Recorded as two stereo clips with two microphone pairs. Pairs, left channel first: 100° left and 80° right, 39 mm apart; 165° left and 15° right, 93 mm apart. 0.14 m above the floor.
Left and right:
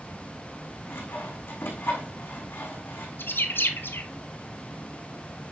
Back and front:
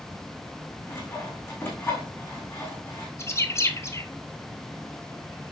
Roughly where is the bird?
Left.